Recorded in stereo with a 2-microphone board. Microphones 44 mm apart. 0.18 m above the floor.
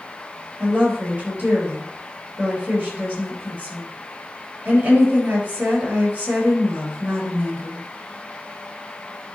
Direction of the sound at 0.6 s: 35° right (ahead or behind).